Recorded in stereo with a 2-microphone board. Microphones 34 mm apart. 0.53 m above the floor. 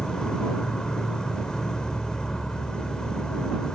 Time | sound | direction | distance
0.0 | an insect | 25° left (ahead or behind) | ?